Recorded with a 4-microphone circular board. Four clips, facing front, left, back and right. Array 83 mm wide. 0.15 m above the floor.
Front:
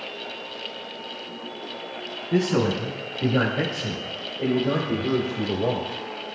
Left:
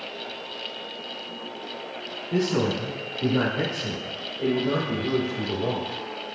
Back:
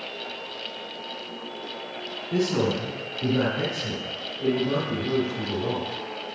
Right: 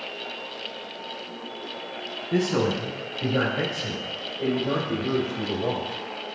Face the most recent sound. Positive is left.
turn(degrees=15)